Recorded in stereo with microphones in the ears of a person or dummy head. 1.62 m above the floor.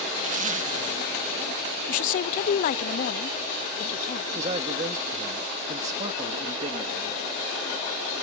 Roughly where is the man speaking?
Right.